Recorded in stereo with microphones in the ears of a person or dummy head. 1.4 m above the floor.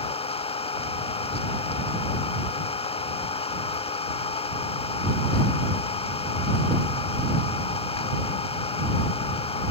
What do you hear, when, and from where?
0.0 s an engine running: 25° left (ahead or behind)